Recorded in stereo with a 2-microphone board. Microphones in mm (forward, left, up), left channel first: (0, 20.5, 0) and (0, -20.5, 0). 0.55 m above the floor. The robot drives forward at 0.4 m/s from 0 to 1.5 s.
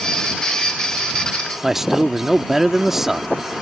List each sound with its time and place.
1.6 s a man speaking: 10° right (ahead or behind)